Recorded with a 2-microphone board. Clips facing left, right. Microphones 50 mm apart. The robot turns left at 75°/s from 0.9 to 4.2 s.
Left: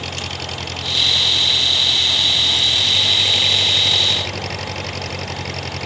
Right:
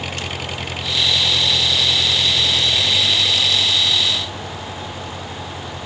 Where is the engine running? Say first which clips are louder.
Right 1 dB; 15° right; by 5.9 s 100° left.